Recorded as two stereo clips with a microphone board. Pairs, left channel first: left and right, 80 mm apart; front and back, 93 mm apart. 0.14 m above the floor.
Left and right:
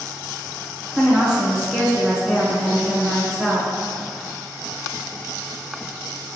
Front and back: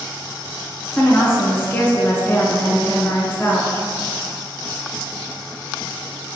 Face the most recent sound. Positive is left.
turn(degrees=-25)